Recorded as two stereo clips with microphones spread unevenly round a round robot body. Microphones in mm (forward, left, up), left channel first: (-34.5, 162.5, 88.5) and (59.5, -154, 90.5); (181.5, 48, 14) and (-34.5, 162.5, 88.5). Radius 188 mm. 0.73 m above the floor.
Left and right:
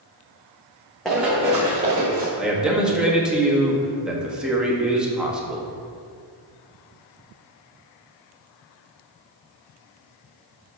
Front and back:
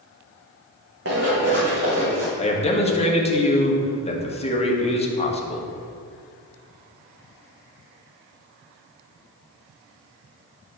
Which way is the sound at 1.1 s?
165° right.